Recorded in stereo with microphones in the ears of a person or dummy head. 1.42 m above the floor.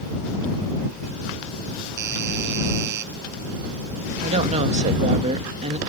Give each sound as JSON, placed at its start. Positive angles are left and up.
{"t": 2.0, "sound": "a doorbell", "side_deg": -60}
{"t": 4.2, "sound": "a woman speaking", "side_deg": -40}